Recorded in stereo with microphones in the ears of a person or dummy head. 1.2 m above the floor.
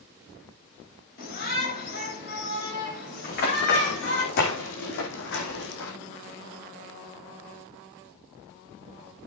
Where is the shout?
45° left (ahead or behind), 8 m; by 4.2 s 65° left (ahead or behind), 8 m.